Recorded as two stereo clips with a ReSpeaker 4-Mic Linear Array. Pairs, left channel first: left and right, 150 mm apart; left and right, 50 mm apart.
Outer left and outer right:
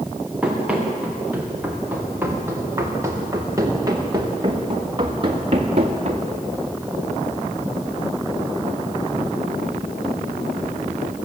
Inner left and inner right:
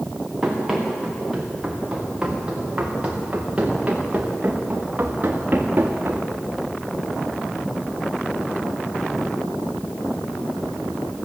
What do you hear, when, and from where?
0.4 s running footsteps: 5° right (ahead or behind), 5.5 m; by 6.3 s 45° right (ahead or behind), 3 m